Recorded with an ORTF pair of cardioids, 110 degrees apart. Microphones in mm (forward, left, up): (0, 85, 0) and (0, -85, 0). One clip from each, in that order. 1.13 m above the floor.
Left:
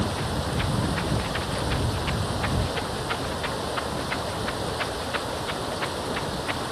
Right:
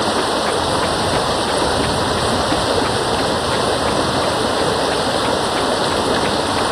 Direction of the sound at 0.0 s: 70° right.